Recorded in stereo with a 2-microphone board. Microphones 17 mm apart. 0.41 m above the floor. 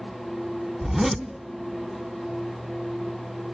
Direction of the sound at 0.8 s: 15° right (ahead or behind).